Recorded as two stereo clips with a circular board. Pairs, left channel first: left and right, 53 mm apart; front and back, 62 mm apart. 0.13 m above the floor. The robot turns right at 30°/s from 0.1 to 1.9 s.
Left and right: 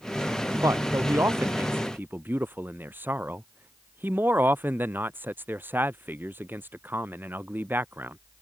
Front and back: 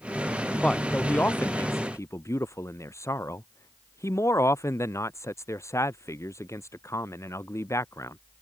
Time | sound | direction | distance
0.6 | a man speaking | 80° right | ?